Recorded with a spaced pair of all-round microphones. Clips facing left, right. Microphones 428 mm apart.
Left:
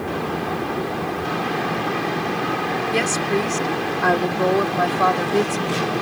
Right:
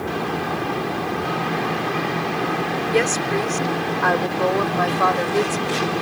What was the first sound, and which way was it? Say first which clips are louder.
A woman speaking: right 2 dB; 55° left (ahead or behind).